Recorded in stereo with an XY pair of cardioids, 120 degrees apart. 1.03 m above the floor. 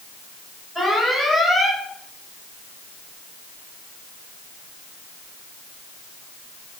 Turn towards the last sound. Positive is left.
turn(degrees=0)